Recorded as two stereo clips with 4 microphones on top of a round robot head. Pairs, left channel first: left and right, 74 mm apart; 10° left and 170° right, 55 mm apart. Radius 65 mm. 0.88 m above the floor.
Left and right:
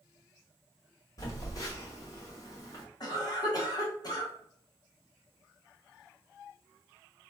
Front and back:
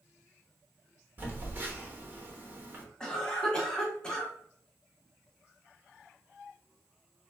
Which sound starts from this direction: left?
A cough, at 3.0 s.